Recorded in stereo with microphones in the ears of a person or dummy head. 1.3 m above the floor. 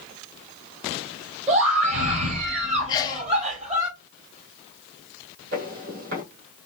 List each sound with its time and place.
1.5 s a scream: 40° right (ahead or behind), 2.0 m
2.9 s a sneeze: 20° left (ahead or behind), 0.6 m
5.5 s footsteps: 50° right (ahead or behind), 2.5 m